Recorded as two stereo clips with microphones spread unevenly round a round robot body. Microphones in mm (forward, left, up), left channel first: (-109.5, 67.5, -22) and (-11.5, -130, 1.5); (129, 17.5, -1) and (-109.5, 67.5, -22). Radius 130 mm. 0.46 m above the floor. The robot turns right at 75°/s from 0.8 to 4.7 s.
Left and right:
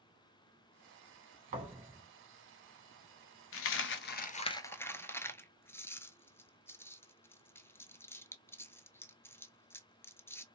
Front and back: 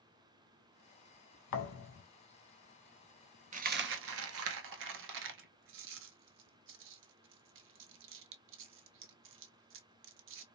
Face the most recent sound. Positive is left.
turn(degrees=-160)